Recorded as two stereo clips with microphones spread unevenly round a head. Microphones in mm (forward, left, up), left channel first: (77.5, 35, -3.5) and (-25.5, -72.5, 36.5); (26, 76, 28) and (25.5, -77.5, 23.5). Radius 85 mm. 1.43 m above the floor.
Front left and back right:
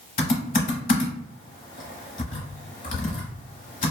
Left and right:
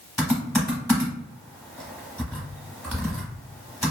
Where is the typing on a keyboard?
5° left, 1.0 m.